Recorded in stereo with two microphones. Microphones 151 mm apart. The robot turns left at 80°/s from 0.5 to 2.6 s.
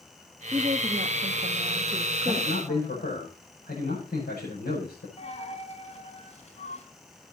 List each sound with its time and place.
0.5 s a woman speaking: 35° right, 1.1 m; by 3.1 s 155° left, 1.1 m
2.3 s a man speaking: 65° left (ahead or behind), 7 m; by 5.1 s 85° left, 7 m
5.2 s a dropped coin: 45° left (ahead or behind), 3.5 m